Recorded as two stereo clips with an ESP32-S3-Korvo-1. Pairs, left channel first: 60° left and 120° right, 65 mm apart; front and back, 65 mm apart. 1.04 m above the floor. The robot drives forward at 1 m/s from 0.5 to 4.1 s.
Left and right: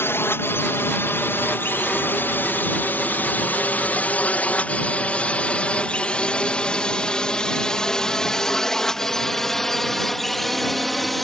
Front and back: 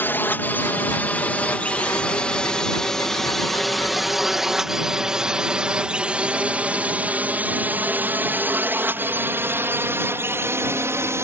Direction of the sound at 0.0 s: 40° left.